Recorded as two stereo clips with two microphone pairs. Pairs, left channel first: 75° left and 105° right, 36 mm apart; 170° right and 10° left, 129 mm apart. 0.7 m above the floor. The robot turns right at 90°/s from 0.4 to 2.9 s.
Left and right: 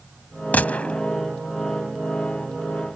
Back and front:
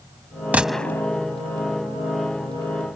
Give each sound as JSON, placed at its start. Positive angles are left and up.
{"t": 0.5, "sound": "a gunshot", "azimuth_deg": 85}